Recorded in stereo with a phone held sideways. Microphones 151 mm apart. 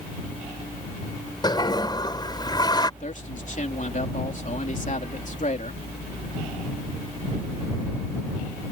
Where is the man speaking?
55° left (ahead or behind).